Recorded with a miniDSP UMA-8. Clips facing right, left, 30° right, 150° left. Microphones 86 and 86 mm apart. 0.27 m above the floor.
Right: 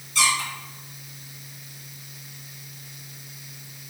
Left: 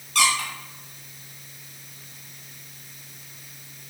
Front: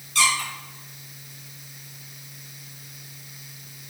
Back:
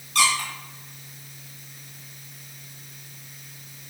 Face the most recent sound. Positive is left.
turn(degrees=115)